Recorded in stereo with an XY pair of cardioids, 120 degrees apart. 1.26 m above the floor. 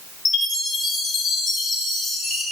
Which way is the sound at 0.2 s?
65° left.